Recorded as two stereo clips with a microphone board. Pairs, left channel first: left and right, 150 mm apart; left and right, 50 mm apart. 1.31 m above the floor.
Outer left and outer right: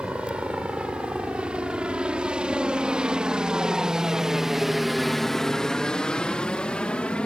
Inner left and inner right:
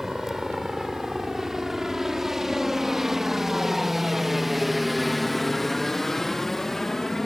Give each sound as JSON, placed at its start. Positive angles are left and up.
{"t": 0.0, "sound": "a helicopter", "side_deg": -5}